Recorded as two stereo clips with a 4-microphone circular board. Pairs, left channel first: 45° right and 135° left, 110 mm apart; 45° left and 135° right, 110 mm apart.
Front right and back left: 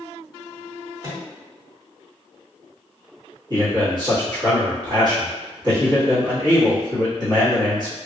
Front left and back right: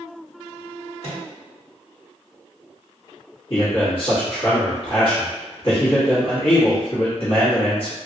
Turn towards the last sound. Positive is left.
turn(degrees=85)